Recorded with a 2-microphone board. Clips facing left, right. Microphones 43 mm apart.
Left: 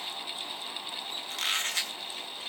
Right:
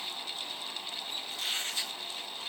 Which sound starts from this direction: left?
A squeak, at 1.3 s.